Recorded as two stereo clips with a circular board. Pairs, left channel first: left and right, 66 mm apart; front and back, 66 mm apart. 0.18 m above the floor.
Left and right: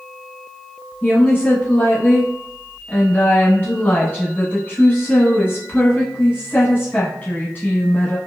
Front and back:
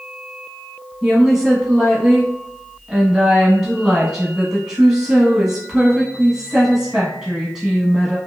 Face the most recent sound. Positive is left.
turn(degrees=105)